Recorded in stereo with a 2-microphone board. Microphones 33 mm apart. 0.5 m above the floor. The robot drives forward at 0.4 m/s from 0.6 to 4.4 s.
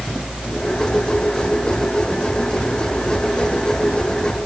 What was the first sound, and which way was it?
Only background noise.